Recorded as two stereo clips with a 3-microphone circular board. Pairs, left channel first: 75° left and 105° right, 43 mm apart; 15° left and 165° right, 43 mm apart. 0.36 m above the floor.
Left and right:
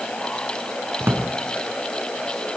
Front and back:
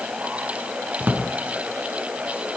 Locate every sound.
1.0 s a drawer: 120° right, 3 m